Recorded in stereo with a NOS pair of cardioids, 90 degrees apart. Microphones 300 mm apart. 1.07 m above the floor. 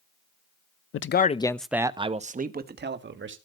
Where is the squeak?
No squeak in this recording.